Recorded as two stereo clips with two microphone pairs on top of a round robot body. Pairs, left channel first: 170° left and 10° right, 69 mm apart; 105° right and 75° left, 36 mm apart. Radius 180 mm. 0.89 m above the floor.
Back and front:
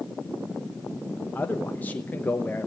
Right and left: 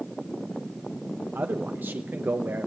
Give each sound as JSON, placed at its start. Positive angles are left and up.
{"t": 1.4, "sound": "a man speaking", "azimuth_deg": 105, "distance_m": 1.1}